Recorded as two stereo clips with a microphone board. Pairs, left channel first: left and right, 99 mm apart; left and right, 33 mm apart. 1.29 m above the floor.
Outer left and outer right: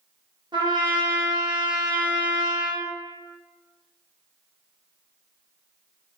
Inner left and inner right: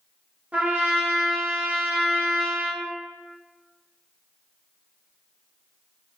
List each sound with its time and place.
0.5 s a trumpet: 50° right (ahead or behind), 0.7 m